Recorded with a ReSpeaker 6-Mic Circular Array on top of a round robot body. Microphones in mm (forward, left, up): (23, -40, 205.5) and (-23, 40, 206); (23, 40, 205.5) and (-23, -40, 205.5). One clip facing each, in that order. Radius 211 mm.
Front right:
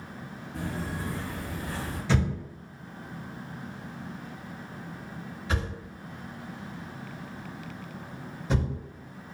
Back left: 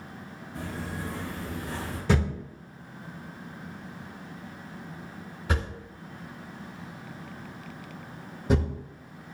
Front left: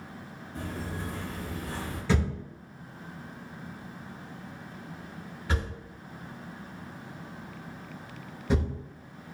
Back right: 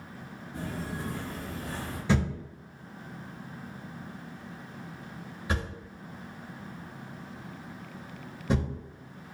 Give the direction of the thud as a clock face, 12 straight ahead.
6 o'clock.